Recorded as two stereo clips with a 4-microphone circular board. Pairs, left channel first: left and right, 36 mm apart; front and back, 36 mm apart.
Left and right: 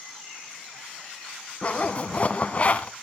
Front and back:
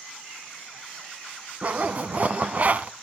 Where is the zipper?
135° left, 0.7 m.